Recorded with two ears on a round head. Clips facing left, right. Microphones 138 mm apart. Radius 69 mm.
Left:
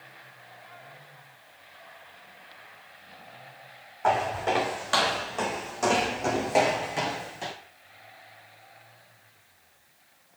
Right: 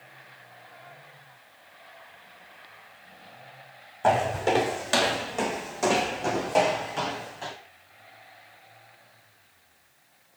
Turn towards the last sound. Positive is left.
turn(degrees=20)  # may be behind; listen again after turning